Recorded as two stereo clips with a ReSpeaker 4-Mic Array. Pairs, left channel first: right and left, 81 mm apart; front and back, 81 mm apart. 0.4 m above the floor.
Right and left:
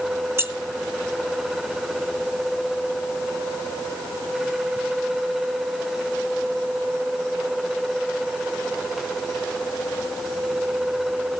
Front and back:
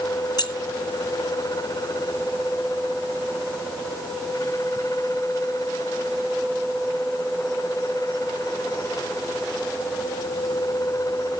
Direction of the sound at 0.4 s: 35° left.